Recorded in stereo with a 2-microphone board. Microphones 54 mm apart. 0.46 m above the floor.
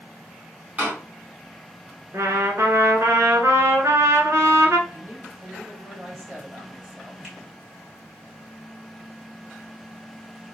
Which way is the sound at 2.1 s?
60° right (ahead or behind).